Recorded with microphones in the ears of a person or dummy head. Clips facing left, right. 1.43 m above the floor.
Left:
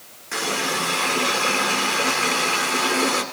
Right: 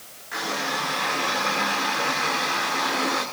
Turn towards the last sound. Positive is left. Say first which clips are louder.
# left 3 dB
turn(degrees=50)  # may be behind; listen again after turning